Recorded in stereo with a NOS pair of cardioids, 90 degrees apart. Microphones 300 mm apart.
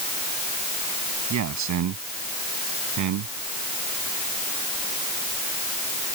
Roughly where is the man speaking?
Ahead right.